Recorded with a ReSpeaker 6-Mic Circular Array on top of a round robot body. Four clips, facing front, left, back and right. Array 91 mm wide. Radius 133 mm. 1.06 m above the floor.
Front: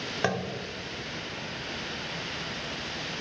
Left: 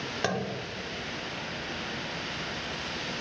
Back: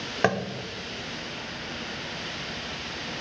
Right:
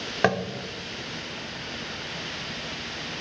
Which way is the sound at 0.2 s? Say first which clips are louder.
Right 7 dB, back 5 dB; 125° right.